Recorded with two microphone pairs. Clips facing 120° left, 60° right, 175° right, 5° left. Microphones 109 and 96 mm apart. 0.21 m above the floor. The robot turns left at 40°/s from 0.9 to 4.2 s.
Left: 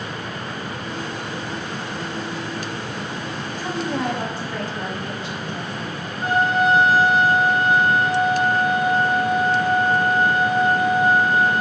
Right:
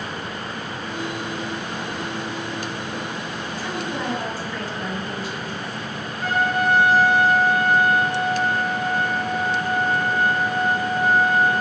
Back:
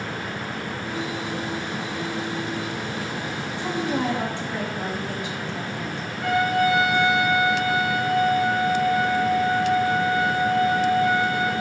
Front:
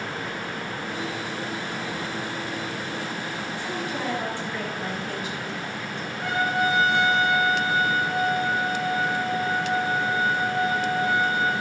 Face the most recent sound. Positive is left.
turn(degrees=60)